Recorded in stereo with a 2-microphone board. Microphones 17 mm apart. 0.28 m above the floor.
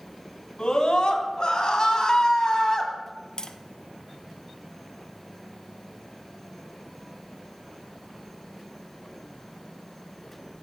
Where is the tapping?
50° left (ahead or behind), 0.7 m.